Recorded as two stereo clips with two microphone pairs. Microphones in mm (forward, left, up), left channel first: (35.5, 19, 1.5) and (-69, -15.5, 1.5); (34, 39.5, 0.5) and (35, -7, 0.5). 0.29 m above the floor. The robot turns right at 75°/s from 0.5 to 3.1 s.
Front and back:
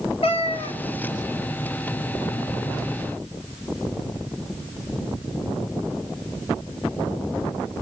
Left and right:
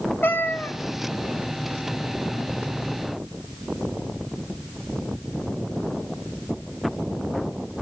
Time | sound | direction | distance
0.2 | a cat meowing | 45° left | 1.5 m